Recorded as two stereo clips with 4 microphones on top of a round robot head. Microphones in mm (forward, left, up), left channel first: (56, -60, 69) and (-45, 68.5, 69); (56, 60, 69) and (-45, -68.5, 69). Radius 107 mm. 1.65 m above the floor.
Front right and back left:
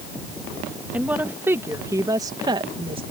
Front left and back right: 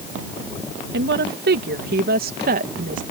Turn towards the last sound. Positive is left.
turn(degrees=-170)